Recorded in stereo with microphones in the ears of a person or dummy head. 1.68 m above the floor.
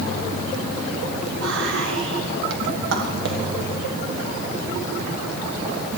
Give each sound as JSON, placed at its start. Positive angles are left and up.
{"t": 1.4, "sound": "whispering", "side_deg": -75, "distance_m": 1.4}